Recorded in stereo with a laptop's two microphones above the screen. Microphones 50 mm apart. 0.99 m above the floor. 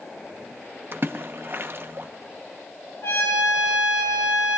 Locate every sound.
0.9 s a splash: 50° right (ahead or behind), 0.8 m
3.0 s a trumpet: 65° left (ahead or behind), 5 m